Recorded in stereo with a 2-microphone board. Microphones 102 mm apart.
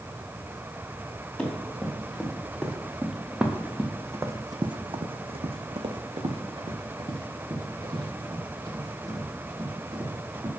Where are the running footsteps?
10° left (ahead or behind), 2 m; by 10.5 s 35° right (ahead or behind), 3 m.